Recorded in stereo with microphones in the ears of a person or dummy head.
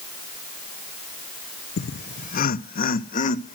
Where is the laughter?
50° left (ahead or behind), 0.5 m; by 3.5 s 40° left (ahead or behind), 1.4 m.